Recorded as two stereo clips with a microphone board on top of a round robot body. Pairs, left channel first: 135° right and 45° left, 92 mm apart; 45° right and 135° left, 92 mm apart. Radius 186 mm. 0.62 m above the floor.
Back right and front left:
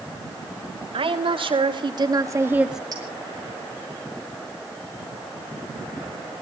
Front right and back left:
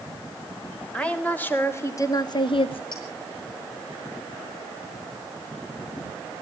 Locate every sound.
0.9 s a woman speaking: 35° left, 3 m; by 2.8 s 45° right, 1.4 m
2.9 s a clink: 5° right, 9.5 m